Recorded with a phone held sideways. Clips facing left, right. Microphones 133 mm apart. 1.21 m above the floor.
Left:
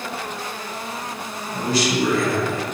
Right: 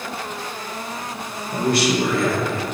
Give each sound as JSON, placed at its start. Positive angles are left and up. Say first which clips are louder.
{"t": 1.5, "sound": "a man speaking", "louder": "right 2 dB", "side_deg": -70, "distance_m": 1.4}